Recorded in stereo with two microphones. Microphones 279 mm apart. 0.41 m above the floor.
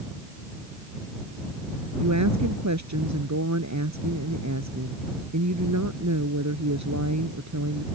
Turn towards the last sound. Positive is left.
turn(degrees=-80)